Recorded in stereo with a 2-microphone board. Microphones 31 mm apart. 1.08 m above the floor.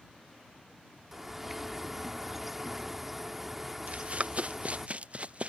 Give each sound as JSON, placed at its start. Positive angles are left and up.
{"t": 1.1, "sound": "a bird", "side_deg": -5}
{"t": 3.9, "sound": "running footsteps", "side_deg": -45}